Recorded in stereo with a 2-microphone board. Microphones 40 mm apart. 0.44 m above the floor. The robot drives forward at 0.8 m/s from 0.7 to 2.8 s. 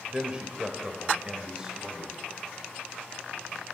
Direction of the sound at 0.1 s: 25° right (ahead or behind).